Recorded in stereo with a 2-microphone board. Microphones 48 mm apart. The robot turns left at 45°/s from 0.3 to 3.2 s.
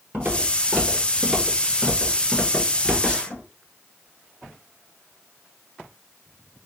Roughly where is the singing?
No singing in this recording.